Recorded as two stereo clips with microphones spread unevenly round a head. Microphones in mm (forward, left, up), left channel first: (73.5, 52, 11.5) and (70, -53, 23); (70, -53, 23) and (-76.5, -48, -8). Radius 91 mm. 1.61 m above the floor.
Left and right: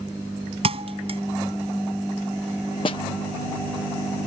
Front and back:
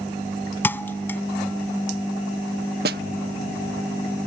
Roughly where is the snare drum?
Behind left.